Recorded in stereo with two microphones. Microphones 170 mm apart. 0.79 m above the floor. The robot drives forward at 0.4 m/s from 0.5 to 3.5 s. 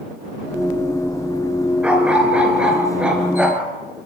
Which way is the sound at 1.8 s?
5° right (ahead or behind).